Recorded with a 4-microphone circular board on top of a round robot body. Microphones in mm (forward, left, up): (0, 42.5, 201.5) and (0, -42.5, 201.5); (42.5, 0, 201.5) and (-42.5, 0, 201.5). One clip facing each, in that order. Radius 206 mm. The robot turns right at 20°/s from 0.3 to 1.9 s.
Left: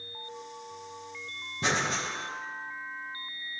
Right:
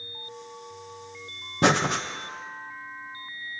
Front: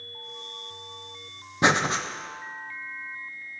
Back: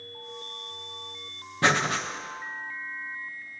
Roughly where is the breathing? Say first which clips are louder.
Right 7 dB, front 2 dB; right.